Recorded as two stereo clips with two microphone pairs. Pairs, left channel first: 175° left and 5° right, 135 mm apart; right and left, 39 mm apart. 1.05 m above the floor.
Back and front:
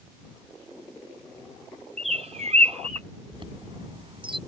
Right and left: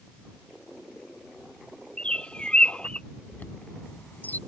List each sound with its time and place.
2.0 s a bird: 30° right
3.3 s a chime: 50° right